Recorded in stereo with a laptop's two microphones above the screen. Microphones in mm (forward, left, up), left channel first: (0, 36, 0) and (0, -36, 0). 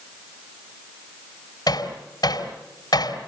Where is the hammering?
70° left (ahead or behind), 4 m.